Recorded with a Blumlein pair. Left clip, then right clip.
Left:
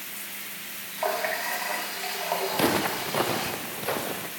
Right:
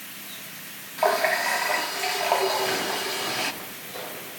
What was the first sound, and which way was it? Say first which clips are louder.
A running tap: right 6 dB; 20° right.